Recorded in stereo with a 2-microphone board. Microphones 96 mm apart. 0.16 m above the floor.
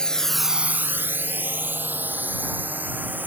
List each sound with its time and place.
0.0 s a drone: 10° left (ahead or behind); by 3.3 s 15° right (ahead or behind)